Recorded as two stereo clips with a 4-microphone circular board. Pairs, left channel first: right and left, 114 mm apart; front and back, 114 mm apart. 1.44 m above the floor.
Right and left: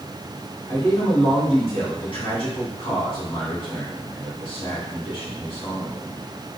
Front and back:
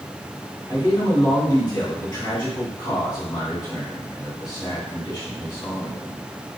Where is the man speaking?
55° right, 2.5 m.